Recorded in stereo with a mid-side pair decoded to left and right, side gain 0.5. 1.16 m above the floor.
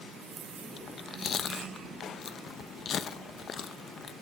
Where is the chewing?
45° left, 0.9 m.